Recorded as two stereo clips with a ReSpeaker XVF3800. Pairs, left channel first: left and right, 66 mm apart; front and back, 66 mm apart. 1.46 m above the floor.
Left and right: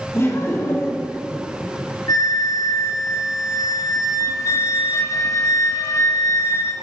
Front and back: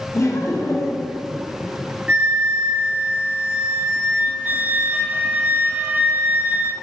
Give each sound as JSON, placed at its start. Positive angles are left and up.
{"t": 0.1, "sound": "laughter", "azimuth_deg": 40, "distance_m": 1.2}
{"t": 2.1, "sound": "a flute", "azimuth_deg": 125, "distance_m": 0.6}